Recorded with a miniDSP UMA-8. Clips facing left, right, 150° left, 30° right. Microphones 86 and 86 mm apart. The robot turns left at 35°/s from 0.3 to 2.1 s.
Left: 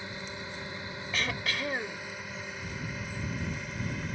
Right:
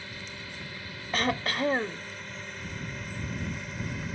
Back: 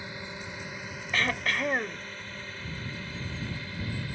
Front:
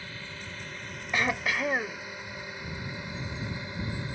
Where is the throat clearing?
100° right; by 2.0 s 130° right.